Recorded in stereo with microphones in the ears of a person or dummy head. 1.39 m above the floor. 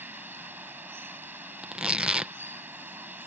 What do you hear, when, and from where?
0.0 s running water: 15° right (ahead or behind)
1.6 s tearing paper: 10° right (ahead or behind)